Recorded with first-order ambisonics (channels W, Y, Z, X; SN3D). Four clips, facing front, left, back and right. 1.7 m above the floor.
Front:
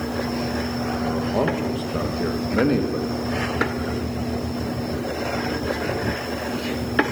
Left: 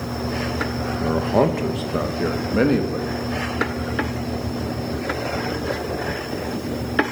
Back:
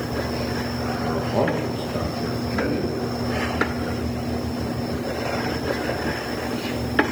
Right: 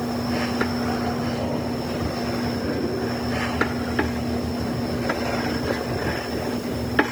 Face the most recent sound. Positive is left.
turn(degrees=55)